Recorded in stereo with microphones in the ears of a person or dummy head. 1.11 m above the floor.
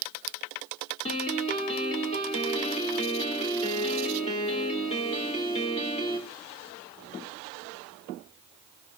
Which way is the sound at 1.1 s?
35° left (ahead or behind).